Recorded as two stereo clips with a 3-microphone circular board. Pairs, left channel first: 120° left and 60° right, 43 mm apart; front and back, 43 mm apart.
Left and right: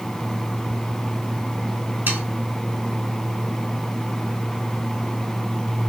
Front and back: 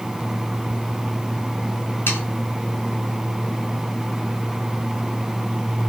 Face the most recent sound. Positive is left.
turn(degrees=-20)